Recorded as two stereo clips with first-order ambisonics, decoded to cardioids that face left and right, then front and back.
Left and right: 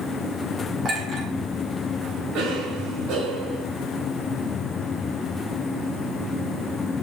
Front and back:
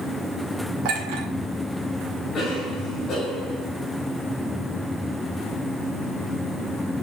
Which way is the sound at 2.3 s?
60° right.